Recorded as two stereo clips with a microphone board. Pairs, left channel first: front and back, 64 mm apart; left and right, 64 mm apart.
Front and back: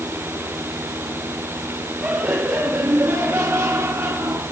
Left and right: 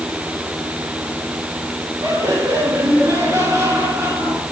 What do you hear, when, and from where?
2.0 s laughter: 115° right, 6 m; by 4.4 s 135° right, 7 m